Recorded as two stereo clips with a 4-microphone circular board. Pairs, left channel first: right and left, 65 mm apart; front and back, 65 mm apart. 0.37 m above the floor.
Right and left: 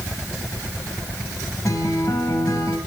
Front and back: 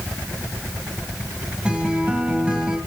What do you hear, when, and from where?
1.6 s a guitar: 105° right, 1.9 m